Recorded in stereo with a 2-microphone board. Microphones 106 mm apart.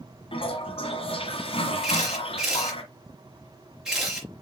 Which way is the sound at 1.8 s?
5° right (ahead or behind).